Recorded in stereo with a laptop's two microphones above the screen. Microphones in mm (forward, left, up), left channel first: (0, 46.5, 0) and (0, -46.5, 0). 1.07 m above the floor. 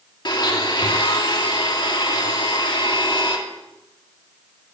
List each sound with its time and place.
0.2 s a blender: 55° left (ahead or behind), 2.5 m